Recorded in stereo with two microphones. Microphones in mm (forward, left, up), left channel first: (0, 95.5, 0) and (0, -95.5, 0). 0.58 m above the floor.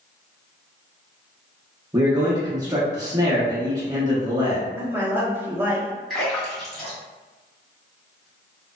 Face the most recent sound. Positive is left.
turn(degrees=5)  # may be behind; listen again after turning